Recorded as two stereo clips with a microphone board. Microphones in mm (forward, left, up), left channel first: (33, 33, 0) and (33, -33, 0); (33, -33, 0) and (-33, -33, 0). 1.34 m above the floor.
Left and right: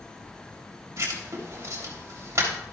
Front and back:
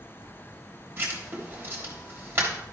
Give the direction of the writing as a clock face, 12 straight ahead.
4 o'clock.